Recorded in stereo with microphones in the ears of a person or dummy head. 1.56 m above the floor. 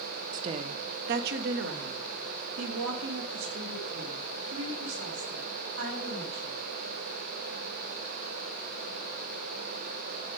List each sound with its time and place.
0.3 s a woman speaking: 30° right (ahead or behind), 0.6 m; by 6.6 s 75° right (ahead or behind), 4 m